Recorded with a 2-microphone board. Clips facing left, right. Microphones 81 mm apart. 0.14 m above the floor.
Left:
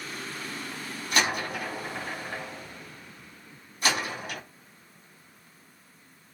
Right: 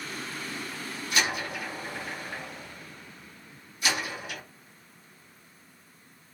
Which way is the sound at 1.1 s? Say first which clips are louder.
Left 2 dB; 50° left (ahead or behind).